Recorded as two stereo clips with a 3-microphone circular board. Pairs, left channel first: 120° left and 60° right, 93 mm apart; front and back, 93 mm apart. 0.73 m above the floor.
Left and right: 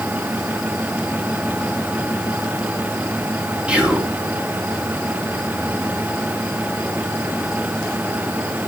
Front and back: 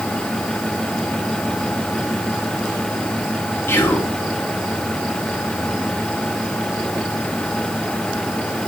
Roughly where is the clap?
No clap in this recording.